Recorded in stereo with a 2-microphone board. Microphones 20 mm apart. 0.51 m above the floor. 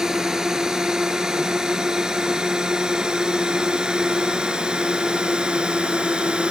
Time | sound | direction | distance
0.0 | a drone | 30° right (ahead or behind) | ?